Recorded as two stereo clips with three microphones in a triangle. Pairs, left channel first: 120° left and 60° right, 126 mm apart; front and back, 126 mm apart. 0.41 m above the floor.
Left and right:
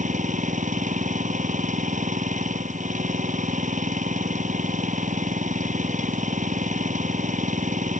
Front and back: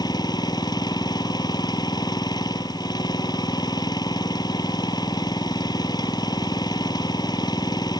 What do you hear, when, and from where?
0.0 s an engine running: 55° right